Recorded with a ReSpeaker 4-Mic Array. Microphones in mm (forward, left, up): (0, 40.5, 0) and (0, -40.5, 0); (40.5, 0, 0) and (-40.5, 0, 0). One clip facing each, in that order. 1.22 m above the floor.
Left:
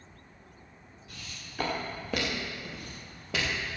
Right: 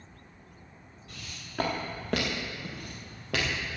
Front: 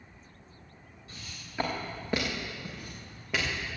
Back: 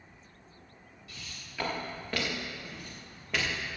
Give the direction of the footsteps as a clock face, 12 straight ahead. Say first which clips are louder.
Right 1 dB, front 1 dB; 2 o'clock.